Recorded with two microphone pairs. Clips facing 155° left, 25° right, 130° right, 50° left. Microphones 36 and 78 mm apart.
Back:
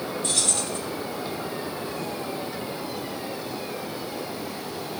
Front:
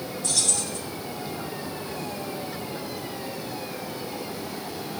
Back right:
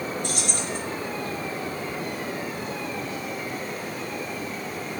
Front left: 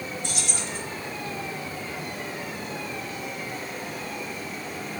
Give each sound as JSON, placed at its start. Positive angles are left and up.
{"t": 0.2, "sound": "keys jangling", "azimuth_deg": -160, "distance_m": 2.5}